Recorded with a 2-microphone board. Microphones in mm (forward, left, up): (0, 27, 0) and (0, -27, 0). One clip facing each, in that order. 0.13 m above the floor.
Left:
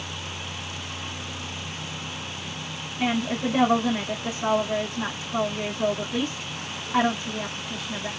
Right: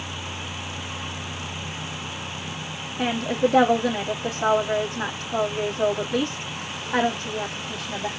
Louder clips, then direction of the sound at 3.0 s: Right 3 dB; 70° right (ahead or behind).